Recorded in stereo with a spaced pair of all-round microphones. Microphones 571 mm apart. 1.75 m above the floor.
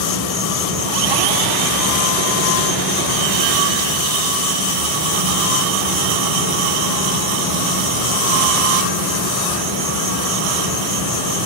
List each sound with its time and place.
0.0 s an insect: 25° right (ahead or behind), 4 m